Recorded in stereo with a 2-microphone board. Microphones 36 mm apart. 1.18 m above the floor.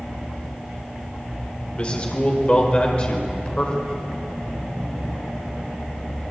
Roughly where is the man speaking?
Left.